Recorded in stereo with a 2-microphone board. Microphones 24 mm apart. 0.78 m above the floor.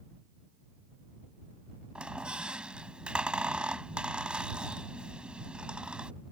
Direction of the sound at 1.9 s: 45° right (ahead or behind).